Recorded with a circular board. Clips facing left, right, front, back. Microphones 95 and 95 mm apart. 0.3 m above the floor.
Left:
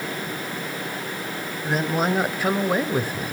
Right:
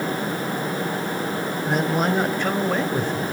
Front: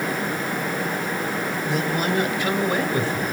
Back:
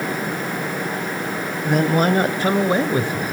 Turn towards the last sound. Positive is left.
turn(degrees=110)